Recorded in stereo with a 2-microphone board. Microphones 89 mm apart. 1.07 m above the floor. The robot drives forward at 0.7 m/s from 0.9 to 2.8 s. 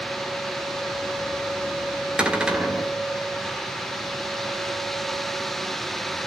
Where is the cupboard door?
10° right (ahead or behind), 1.5 m.